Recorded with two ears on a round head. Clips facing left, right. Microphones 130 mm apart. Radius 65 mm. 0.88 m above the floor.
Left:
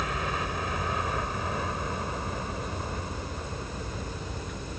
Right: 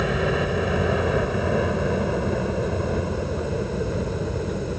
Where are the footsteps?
I don't hear footsteps.